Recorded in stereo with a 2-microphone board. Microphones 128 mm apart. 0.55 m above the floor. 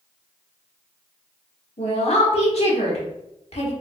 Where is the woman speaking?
55° left (ahead or behind), 1.1 m.